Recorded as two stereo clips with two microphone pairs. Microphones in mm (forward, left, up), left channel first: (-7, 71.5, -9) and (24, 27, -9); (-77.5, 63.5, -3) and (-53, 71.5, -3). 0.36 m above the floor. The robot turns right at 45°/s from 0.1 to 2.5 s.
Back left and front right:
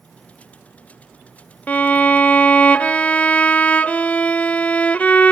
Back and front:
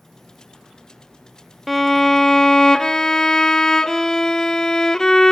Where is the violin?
110° left, 0.7 m; by 5.3 s 150° left, 0.7 m.